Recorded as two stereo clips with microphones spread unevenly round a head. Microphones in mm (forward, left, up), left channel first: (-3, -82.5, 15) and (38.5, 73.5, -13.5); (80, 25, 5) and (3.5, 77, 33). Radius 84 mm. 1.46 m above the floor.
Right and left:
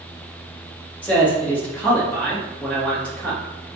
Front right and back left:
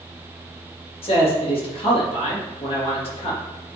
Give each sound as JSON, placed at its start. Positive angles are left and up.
{"t": 1.0, "sound": "a man speaking", "azimuth_deg": -25, "distance_m": 3.0}